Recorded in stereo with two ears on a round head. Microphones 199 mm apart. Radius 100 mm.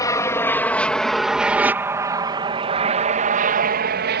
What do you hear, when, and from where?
0.0 s an aircraft: 15° left (ahead or behind); by 4.2 s 50° right (ahead or behind)